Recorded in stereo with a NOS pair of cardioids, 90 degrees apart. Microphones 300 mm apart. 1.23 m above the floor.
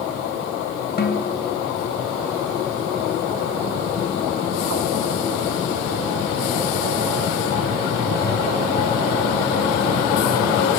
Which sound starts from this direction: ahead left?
A snare drum, at 1.0 s.